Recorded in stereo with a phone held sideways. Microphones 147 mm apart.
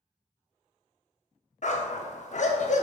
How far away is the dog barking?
About 0.8 m.